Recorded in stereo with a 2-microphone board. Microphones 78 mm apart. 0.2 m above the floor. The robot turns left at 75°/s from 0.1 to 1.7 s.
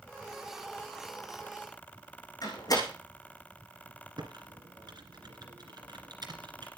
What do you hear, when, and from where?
2.4 s a door slam: 50° left (ahead or behind), 7 m
4.2 s typing on a keyboard: 65° right (ahead or behind), 2 m